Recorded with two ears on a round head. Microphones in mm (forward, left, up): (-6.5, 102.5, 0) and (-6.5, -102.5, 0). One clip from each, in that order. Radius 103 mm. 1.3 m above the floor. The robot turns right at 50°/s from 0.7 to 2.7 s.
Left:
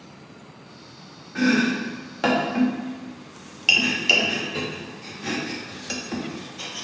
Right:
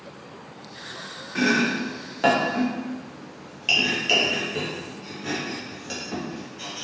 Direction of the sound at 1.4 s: 20° right (ahead or behind).